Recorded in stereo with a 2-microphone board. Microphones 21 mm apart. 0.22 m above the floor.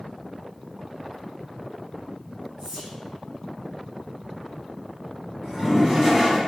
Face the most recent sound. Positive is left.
turn(degrees=-20)  # may be behind; listen again after turning